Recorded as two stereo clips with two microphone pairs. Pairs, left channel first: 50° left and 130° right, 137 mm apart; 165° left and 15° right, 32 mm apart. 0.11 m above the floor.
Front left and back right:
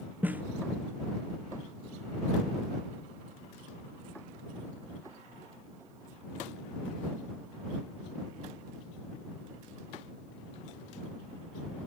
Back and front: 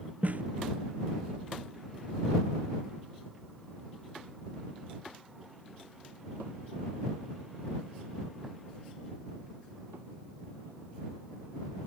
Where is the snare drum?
50° right.